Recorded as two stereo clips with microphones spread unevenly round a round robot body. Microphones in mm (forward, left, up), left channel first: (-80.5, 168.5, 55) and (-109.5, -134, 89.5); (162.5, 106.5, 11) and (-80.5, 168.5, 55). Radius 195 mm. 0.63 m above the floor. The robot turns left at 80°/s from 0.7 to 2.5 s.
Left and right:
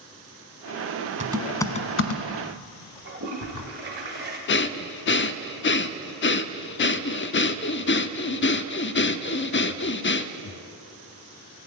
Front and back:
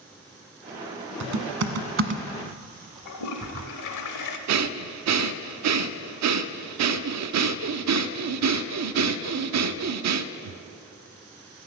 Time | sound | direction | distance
1.2 | typing on a keyboard | 160° right | 1.3 m
3.0 | a toilet flushing | 30° right | 0.8 m
4.5 | breathing | 140° left | 0.6 m